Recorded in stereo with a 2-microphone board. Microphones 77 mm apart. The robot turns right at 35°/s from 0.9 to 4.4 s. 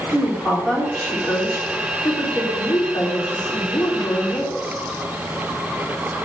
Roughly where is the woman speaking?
Ahead.